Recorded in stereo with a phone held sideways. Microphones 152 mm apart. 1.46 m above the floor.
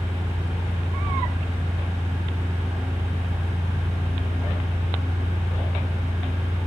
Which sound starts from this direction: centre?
A fan, at 0.0 s.